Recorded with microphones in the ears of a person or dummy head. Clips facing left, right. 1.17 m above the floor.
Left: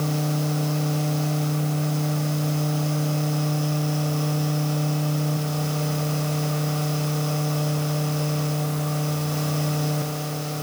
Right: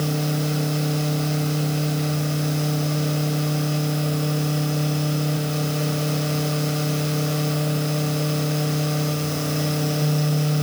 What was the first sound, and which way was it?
Only background noise.